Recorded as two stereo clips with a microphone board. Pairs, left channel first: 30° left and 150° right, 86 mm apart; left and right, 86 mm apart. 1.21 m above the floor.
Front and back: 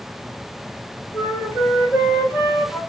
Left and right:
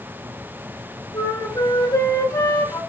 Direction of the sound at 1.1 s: 140° left.